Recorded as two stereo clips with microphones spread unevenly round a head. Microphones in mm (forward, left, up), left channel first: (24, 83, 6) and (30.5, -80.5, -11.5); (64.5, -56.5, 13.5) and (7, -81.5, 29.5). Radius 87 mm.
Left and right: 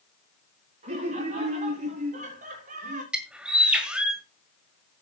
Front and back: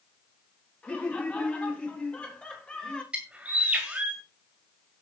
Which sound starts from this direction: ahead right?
Laughter, at 0.8 s.